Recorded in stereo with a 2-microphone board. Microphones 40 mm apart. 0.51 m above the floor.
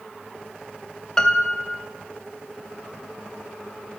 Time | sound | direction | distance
1.2 | a piano | 15° left (ahead or behind) | 0.6 m